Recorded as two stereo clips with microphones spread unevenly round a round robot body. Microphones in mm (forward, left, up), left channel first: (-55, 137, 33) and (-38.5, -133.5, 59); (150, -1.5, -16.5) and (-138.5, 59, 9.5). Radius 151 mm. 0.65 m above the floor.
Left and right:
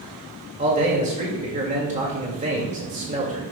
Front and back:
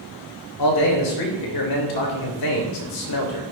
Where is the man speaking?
20° right, 2 m.